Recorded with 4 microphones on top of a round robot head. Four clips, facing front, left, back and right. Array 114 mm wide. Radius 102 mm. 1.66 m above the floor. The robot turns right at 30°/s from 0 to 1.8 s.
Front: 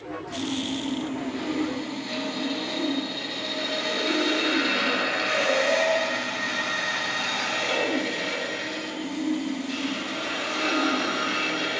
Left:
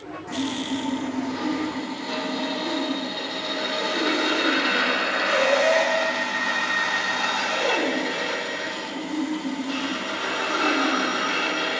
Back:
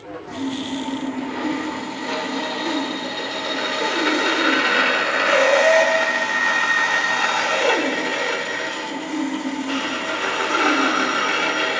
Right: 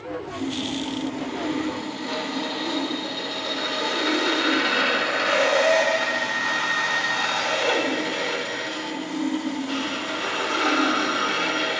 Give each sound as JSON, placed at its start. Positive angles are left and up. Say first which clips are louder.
{"t": 0.3, "sound": "sawing", "louder": "left 4 dB, back 4 dB", "azimuth_deg": 135, "distance_m": 7.0}